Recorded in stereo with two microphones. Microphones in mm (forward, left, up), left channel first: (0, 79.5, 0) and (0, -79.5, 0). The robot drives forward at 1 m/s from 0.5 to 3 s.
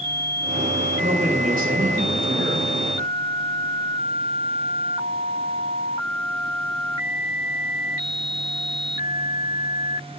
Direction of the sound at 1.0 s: 60° right (ahead or behind).